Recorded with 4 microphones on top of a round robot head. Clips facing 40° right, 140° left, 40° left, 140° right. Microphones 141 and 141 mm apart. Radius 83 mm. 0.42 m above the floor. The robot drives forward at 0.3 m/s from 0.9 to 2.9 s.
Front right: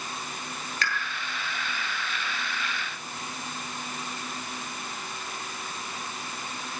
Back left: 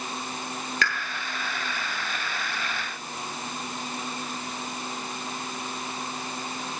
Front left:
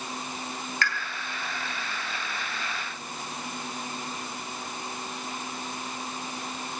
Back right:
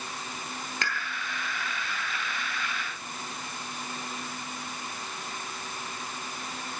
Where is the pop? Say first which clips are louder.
Back left 2 dB, front left 3 dB; 150° left, 9.5 m.